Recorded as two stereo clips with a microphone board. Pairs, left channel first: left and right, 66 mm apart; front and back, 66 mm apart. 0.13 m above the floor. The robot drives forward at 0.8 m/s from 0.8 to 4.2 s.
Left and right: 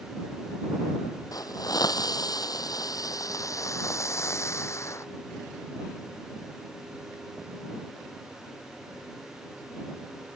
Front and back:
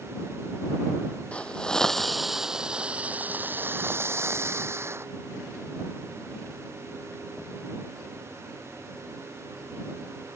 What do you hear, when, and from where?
1.3 s a hiss: 70° left; by 5.0 s 130° left